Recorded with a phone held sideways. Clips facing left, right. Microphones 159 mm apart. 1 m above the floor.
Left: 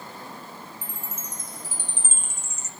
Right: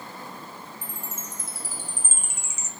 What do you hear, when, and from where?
0.8 s a chime: 10° right (ahead or behind), 0.6 m